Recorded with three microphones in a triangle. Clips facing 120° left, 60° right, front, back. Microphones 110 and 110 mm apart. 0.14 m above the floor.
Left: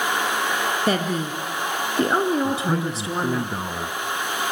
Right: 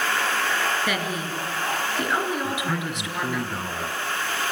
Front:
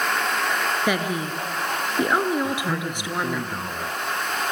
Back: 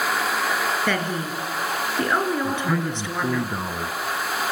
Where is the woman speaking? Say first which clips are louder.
Left 5 dB, front 1 dB; 75° left, 2.5 m.